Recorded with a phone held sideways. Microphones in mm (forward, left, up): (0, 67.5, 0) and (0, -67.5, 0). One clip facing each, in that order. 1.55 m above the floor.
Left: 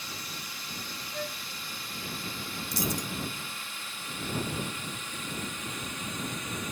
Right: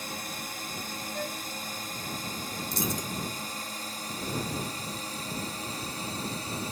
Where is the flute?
Centre (ahead or behind).